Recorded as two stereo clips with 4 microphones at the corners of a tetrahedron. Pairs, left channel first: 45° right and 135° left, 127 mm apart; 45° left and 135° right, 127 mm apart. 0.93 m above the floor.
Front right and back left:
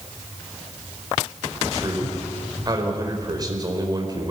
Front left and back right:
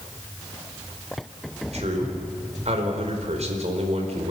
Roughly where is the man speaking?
Behind.